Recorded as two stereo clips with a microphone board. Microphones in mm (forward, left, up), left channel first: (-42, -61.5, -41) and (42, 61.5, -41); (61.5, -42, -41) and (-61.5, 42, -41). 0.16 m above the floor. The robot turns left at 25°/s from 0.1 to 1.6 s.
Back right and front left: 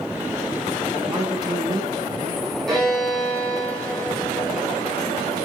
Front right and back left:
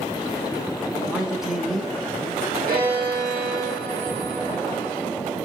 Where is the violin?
150° left, 4.5 m.